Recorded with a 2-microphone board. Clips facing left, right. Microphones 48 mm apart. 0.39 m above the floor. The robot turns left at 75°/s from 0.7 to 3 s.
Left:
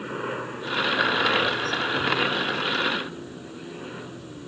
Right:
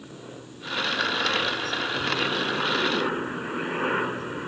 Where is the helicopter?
115° left; by 4.5 s 60° right.